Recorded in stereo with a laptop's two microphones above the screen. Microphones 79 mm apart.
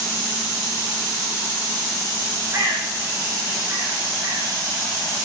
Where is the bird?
35° right (ahead or behind), 8 m.